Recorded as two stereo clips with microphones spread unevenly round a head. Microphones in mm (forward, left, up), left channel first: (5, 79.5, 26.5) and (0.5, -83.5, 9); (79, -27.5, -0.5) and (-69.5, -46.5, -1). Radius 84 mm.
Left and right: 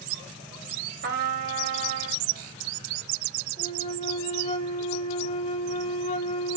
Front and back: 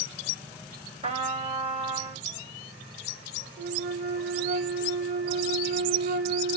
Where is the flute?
140° left, 2.5 m.